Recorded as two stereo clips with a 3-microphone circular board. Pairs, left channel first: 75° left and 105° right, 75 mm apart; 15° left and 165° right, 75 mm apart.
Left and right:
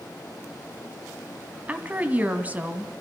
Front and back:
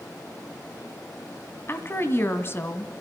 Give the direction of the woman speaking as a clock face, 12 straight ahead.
1 o'clock.